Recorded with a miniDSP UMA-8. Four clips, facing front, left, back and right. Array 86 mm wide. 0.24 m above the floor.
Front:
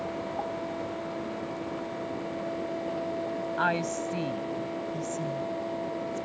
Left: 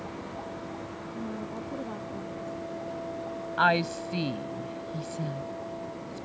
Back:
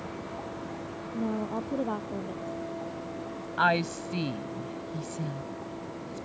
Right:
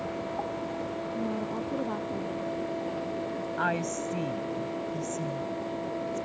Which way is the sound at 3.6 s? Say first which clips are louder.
Left 6 dB, back 4 dB; 120° left.